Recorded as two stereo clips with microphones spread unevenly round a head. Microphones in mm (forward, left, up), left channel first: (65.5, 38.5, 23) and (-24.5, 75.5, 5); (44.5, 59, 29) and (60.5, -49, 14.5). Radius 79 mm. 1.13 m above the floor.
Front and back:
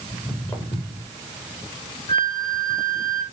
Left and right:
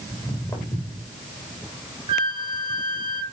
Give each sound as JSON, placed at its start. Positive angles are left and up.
{"t": 0.1, "sound": "footsteps", "azimuth_deg": 45, "distance_m": 4.5}
{"t": 2.1, "sound": "a flute", "azimuth_deg": -45, "distance_m": 0.8}